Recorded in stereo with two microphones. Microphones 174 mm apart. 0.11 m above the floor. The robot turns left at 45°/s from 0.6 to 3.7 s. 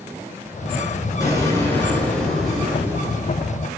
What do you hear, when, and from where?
1.2 s an explosion: 20° left (ahead or behind), 1.1 m; by 3.4 s 20° right (ahead or behind), 1.1 m